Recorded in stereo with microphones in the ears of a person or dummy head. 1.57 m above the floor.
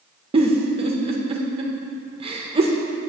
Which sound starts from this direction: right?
A giggle, at 0.3 s.